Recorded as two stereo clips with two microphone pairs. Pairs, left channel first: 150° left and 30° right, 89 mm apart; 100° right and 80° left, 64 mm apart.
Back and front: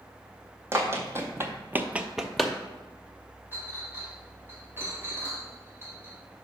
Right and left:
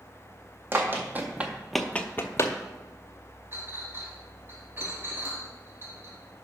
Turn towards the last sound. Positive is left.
turn(degrees=30)